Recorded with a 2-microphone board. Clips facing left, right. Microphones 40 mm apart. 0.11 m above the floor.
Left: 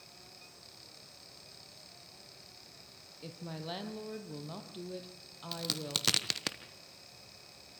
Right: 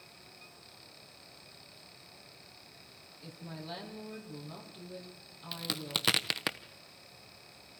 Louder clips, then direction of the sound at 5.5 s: Right 1 dB; 20° right (ahead or behind).